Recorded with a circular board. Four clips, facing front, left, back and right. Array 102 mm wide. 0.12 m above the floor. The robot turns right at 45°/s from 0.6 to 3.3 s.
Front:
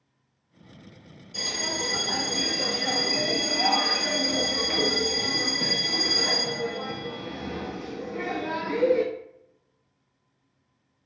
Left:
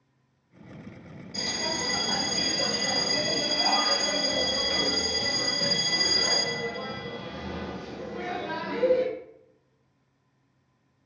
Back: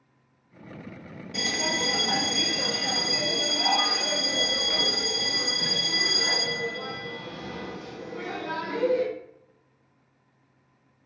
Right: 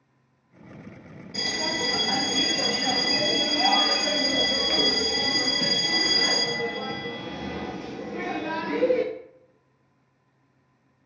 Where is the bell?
165° right, 0.9 m; by 9.0 s 75° right, 0.9 m.